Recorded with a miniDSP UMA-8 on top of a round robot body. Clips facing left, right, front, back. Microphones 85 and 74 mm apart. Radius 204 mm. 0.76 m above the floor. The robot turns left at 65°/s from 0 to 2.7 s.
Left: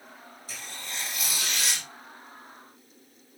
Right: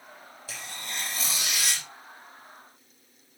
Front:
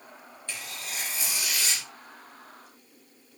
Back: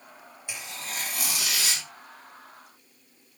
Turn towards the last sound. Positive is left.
turn(degrees=115)